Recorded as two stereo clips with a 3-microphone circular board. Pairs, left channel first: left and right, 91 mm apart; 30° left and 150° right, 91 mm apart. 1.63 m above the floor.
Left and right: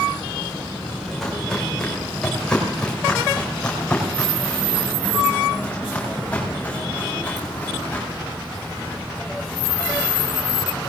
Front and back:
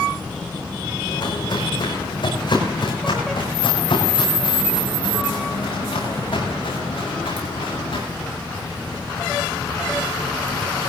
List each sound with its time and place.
1.1 s footsteps: 5° left, 5 m; by 8.0 s 15° left, 8.5 m